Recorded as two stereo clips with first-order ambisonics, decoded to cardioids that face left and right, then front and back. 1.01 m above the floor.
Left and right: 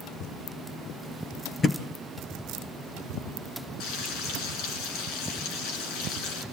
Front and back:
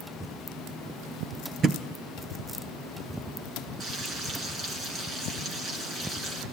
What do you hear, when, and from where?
1.6 s a thud: 145° left, 1.1 m
3.8 s frying: 115° left, 4 m